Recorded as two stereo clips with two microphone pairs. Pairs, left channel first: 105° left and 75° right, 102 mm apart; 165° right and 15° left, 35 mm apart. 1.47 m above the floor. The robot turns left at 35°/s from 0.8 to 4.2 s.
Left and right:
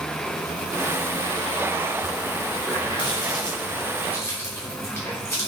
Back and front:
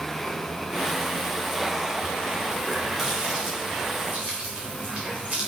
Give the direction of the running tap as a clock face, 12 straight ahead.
9 o'clock.